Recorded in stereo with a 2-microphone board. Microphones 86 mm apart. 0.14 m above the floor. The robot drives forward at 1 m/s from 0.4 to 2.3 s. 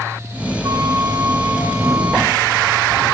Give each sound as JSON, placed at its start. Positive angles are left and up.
{"t": 0.6, "sound": "a flute", "side_deg": -45, "distance_m": 1.7}